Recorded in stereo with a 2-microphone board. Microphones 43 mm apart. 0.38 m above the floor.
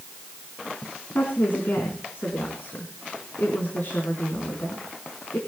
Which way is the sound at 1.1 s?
50° left (ahead or behind).